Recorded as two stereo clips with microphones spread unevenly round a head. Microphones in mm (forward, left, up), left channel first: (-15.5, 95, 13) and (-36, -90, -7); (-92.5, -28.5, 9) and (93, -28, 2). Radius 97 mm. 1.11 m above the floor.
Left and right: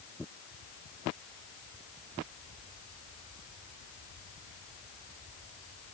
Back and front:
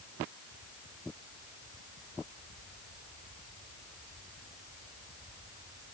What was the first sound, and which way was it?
Only background noise.